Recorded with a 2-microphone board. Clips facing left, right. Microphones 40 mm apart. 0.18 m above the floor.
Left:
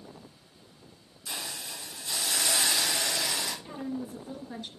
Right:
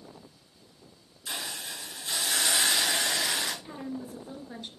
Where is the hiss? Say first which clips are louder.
Right 2 dB; 45° right (ahead or behind), 3 m.